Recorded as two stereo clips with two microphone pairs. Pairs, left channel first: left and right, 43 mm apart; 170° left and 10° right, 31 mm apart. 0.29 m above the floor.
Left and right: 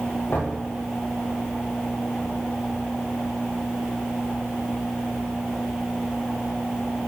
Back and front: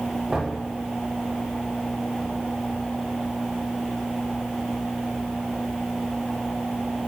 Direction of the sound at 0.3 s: 55° left.